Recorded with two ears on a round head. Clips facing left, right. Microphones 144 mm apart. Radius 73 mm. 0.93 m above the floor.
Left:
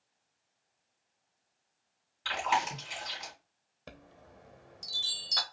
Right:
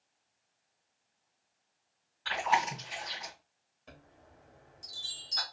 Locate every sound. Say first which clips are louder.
2.2 s chewing: right 1 dB; 35° left (ahead or behind), 3 m
3.9 s a chime: left 4 dB; 70° left (ahead or behind), 0.9 m